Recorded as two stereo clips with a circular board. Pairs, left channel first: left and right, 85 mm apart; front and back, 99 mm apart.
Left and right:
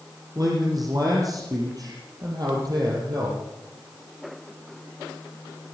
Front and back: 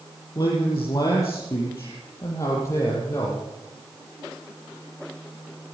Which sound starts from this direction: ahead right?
A man speaking, at 0.3 s.